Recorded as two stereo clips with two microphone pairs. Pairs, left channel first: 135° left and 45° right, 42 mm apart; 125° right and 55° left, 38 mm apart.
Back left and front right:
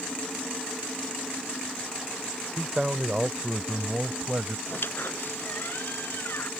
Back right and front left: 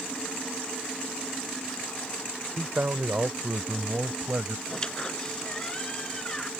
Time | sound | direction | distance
2.6 | a man speaking | 30° left | ?
4.7 | a squeak | 160° left | ?